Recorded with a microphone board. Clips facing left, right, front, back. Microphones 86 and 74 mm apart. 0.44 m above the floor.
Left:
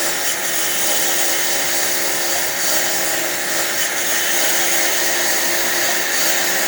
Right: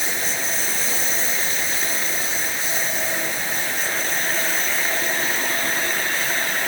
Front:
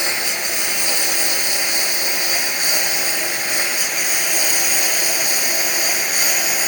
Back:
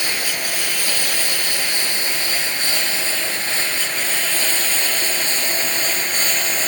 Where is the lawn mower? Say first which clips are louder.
Left 3 dB, front 1 dB; 70° left; by 6.7 s 80° left.